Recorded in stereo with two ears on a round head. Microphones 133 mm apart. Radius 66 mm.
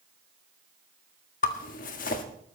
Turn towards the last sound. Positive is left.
turn(degrees=55)  # may be behind; listen again after turning